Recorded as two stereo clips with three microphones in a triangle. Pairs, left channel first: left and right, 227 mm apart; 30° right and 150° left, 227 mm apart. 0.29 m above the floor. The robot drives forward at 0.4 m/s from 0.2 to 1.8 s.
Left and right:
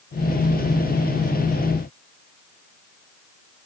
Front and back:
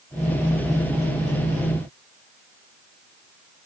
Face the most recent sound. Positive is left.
No sound to turn to.